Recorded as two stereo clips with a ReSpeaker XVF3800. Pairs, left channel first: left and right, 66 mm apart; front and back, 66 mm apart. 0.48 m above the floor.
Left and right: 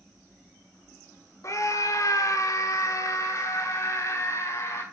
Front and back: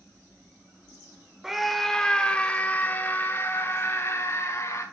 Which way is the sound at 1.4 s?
100° left.